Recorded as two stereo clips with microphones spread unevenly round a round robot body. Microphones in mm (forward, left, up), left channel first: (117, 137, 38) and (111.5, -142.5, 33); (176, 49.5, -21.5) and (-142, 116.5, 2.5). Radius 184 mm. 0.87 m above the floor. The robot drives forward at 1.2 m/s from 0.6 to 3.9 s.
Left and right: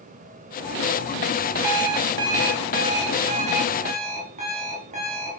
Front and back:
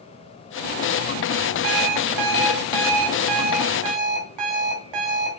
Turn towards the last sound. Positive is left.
turn(degrees=-165)